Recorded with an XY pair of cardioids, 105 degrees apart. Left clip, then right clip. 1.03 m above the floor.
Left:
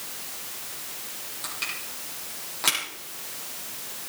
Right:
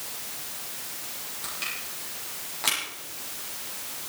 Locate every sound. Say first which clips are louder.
1.4 s crushing: left 1 dB; 15° left, 8.5 m